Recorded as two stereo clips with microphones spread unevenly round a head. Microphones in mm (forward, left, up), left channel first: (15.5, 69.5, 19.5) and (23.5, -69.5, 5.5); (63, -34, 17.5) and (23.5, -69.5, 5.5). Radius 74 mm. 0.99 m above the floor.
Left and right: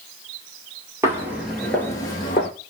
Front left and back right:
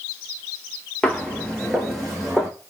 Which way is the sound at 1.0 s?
15° right.